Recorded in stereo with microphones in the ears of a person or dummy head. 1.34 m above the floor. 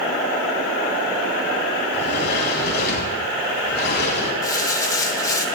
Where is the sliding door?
60° left (ahead or behind), 4 m.